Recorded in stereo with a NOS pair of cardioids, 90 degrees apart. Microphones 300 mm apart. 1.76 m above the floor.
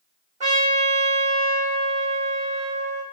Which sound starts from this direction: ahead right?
A trumpet, at 0.4 s.